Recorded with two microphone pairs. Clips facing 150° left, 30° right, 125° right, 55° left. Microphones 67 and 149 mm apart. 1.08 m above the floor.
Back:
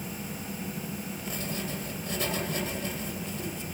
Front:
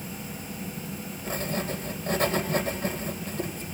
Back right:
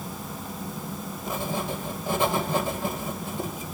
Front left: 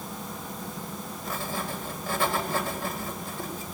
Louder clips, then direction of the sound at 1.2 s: Front 6 dB, back right 4 dB; 60° right.